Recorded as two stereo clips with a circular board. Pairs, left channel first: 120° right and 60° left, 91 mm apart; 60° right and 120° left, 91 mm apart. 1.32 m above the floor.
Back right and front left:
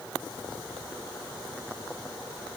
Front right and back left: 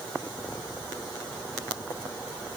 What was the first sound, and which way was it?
Only background noise.